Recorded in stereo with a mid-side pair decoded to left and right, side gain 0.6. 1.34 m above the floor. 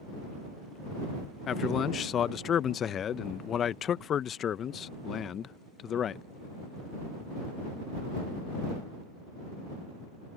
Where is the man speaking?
45° left.